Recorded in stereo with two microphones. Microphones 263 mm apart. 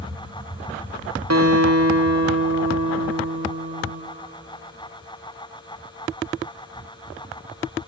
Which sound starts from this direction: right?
A guitar, at 1.3 s.